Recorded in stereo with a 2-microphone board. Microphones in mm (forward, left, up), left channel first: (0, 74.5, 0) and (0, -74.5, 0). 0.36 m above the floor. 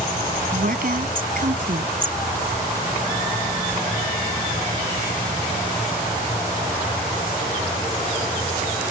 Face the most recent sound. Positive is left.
turn(degrees=-70)  # may be behind; listen again after turning